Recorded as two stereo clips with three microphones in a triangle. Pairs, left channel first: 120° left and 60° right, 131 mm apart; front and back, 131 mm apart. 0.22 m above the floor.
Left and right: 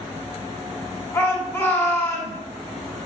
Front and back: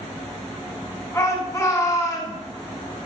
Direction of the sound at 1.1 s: 55° left.